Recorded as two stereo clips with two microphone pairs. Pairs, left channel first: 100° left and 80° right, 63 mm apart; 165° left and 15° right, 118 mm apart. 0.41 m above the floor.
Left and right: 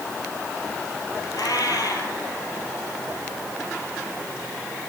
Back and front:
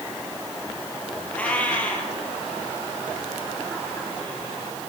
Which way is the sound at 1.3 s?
85° left.